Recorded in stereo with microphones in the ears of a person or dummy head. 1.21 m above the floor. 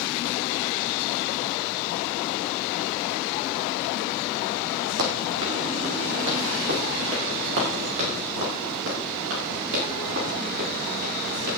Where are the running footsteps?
65° right (ahead or behind), 4 m.